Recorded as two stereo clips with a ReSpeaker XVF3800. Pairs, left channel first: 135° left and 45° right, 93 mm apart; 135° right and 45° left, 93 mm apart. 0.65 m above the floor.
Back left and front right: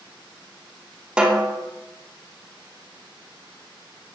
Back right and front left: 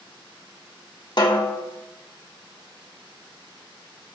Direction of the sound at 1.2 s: 120° right.